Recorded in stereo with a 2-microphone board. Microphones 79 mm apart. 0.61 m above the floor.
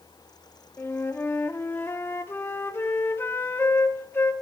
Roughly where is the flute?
Left.